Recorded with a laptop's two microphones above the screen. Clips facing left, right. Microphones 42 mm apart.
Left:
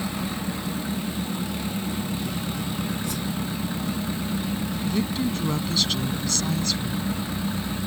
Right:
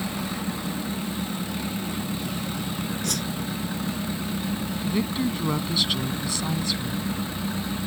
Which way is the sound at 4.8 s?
15° right (ahead or behind).